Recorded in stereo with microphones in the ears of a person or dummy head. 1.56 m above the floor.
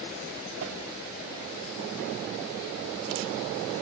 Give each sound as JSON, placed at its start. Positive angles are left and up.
{"t": 0.6, "sound": "a whoosh", "side_deg": -80, "distance_m": 3.0}